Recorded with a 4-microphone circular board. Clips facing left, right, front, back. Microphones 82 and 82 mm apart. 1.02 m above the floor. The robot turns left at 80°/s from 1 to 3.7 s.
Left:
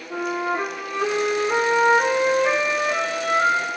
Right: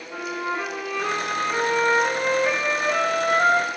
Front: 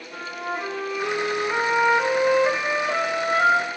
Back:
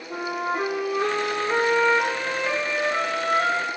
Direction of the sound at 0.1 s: 150° left.